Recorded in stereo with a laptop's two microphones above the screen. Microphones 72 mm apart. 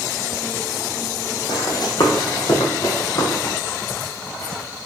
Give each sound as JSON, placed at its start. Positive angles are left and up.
{"t": 1.5, "sound": "running footsteps", "side_deg": 65, "distance_m": 2.5}